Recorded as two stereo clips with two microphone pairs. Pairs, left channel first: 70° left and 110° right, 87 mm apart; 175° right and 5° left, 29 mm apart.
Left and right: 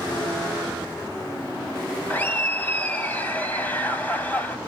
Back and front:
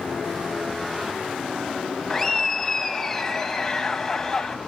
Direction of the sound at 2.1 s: 115° left.